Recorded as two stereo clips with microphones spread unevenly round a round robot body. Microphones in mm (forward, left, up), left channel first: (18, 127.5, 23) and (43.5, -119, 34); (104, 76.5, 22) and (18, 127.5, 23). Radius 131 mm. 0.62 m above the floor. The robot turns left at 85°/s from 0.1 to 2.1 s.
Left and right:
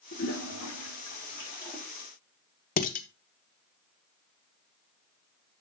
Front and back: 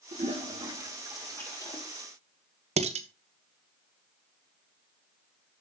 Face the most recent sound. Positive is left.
turn(degrees=155)